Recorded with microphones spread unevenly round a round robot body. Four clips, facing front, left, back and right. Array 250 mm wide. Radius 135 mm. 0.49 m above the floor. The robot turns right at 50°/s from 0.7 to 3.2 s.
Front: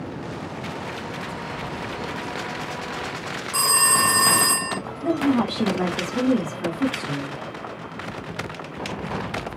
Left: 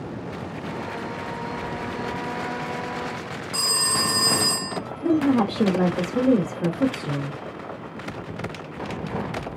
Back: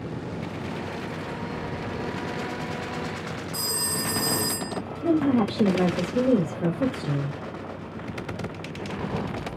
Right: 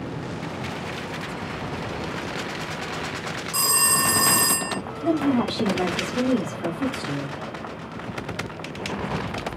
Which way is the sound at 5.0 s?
130° left.